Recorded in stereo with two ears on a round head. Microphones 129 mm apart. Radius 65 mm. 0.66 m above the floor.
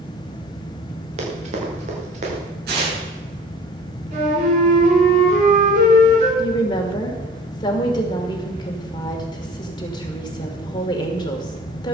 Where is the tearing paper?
85° right, 8.5 m.